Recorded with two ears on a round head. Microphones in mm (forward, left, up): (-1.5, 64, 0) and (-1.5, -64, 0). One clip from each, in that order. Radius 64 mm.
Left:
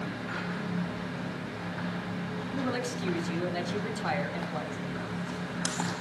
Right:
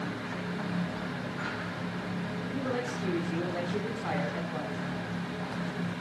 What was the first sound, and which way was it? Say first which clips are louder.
A woman speaking: left 1 dB; 70° left (ahead or behind).